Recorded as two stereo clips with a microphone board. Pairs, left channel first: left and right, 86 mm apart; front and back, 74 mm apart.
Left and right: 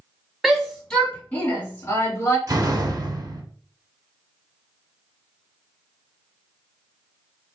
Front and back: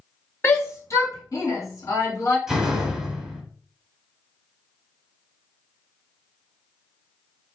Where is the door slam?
95° right, 1.1 m.